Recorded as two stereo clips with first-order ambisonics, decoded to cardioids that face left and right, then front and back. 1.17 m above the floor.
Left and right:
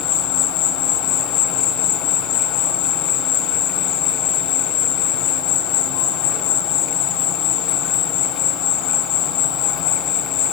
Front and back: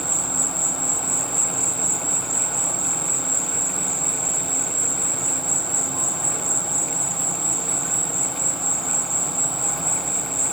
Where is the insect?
85° left, 2 m.